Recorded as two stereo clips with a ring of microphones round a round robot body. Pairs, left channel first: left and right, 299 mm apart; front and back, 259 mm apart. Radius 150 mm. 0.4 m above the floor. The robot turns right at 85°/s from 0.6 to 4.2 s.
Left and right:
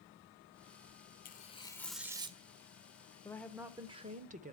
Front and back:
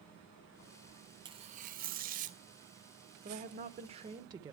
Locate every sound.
1.2 s tearing paper: 120° left, 1.0 m; by 2.4 s 145° right, 1.0 m
3.2 s a woman speaking: 160° left, 0.8 m; by 4.5 s 120° right, 0.8 m